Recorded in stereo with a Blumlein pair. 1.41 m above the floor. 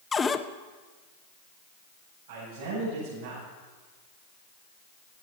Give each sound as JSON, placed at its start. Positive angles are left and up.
{"t": 0.1, "sound": "a cupboard door", "azimuth_deg": 15, "distance_m": 0.8}
{"t": 2.3, "sound": "a man speaking", "azimuth_deg": -55, "distance_m": 9.5}